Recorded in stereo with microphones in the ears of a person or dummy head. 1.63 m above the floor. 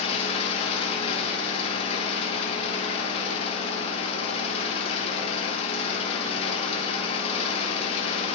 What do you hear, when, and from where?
0.0 s an engine running: 35° left (ahead or behind), 1.8 m